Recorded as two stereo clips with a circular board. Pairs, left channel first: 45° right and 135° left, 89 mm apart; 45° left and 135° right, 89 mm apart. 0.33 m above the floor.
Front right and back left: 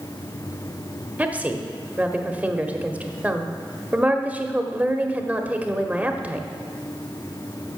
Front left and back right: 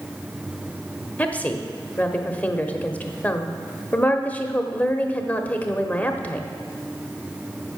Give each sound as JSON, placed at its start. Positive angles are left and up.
{"t": 1.2, "sound": "a woman speaking", "azimuth_deg": 90, "distance_m": 0.9}